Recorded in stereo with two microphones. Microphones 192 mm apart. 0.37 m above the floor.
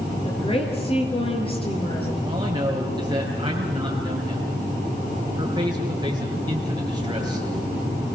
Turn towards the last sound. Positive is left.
turn(degrees=-20)  # may be behind; listen again after turning